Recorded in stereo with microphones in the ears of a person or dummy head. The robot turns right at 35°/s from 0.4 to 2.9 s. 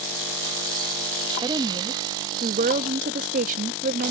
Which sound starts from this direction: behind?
A woman speaking, at 1.4 s.